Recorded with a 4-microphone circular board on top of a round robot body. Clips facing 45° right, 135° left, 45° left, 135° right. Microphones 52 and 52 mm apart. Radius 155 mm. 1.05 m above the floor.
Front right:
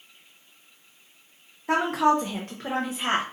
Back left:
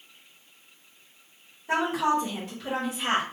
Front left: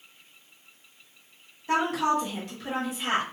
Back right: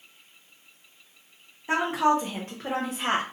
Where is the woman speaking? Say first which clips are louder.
Front right 3 dB, back right 2 dB; 65° right, 1.1 m; by 3.2 s 115° right, 0.8 m.